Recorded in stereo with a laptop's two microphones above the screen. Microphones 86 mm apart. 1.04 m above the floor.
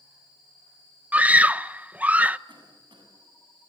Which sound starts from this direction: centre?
A scream, at 1.1 s.